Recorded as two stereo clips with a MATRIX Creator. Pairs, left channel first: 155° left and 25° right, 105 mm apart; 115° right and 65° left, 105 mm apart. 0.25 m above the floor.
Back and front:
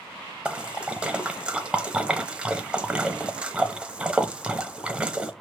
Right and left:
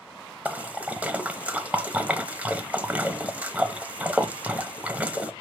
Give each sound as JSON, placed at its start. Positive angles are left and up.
{"t": 0.5, "sound": "a splash", "azimuth_deg": 30, "distance_m": 0.8}